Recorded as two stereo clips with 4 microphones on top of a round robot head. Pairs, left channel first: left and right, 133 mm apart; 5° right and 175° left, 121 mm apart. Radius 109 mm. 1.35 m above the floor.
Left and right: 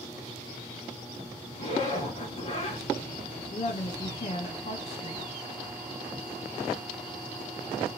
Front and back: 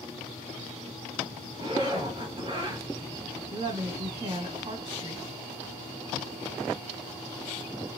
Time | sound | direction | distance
1.6 | a zipper | 125° left | 1.6 m
3.5 | a woman speaking | 125° left | 1.6 m